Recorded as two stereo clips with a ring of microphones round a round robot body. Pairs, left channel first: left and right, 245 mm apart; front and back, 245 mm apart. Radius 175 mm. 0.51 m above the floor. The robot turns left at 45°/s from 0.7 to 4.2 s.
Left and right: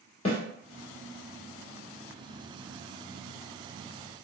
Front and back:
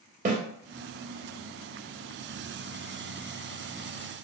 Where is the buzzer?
No buzzer in this recording.